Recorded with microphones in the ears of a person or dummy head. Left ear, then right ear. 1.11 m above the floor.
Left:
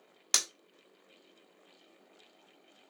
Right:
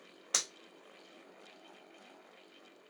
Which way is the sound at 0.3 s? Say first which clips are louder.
Left 4 dB; 80° left.